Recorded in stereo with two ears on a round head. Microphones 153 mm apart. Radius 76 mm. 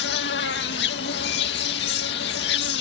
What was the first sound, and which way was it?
An insect, 70° left (ahead or behind).